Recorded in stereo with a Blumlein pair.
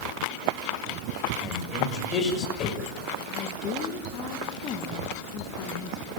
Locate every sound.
1.4 s a man speaking: 30° left, 6 m
3.3 s a woman speaking: 30° left, 1.9 m